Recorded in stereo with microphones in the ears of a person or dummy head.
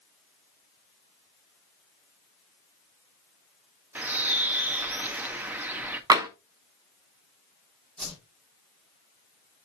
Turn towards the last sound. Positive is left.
turn(degrees=5)  # may be behind; listen again after turning